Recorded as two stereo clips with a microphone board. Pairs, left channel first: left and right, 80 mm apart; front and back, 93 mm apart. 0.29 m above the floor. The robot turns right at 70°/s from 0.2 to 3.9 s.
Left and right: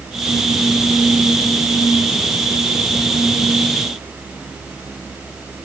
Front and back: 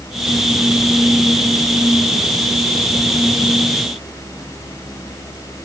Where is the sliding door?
I don't hear a sliding door.